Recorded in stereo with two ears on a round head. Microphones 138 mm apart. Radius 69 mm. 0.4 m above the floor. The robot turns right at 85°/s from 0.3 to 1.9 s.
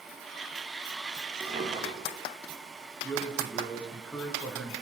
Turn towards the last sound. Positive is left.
turn(degrees=5)  # may be behind; listen again after turning